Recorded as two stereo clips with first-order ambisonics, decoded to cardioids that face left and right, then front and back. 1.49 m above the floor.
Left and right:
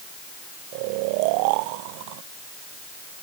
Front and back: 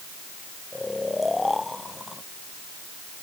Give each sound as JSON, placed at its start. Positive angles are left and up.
{"t": 0.7, "sound": "snoring", "azimuth_deg": -80}